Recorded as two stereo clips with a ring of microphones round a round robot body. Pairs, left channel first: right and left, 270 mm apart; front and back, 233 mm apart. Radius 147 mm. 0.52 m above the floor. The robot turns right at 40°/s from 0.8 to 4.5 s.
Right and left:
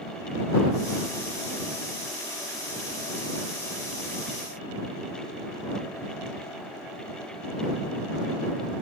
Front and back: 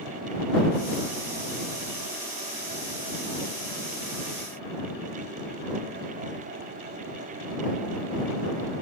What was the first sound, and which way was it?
Only background noise.